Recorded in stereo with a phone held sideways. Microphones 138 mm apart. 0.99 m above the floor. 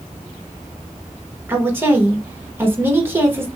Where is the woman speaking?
15° right (ahead or behind), 1.2 m.